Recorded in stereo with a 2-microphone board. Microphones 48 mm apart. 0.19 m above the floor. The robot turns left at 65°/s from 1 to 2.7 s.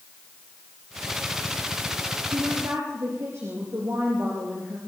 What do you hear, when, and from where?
2.3 s a woman speaking: 70° right (ahead or behind), 4.5 m; by 4.8 s 65° right (ahead or behind), 4.5 m